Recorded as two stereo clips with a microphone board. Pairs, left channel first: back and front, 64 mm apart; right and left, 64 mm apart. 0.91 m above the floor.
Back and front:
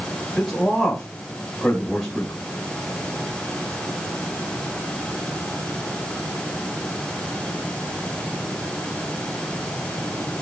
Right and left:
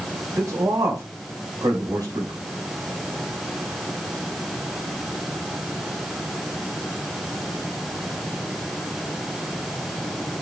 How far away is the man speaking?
About 4 m.